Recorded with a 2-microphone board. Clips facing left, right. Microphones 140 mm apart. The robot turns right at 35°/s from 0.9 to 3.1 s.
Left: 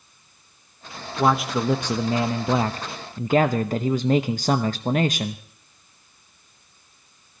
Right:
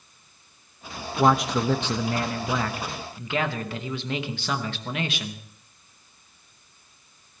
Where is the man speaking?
5° right, 0.8 m; by 5.4 s 60° left, 0.8 m.